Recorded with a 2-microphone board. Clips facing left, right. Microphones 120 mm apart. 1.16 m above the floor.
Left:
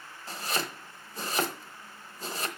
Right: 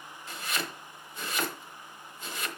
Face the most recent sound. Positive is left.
turn(degrees=35)  # may be behind; listen again after turning